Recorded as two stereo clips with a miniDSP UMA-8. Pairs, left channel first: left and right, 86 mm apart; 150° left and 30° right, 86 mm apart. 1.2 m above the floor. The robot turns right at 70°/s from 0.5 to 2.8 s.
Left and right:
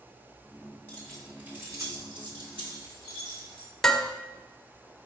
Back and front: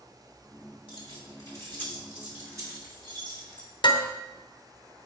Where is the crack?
I don't hear a crack.